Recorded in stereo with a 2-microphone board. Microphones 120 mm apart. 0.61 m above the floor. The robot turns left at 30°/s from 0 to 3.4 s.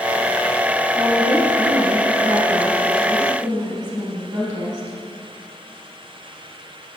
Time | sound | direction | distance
0.9 | a woman speaking | 65° right | 3.5 m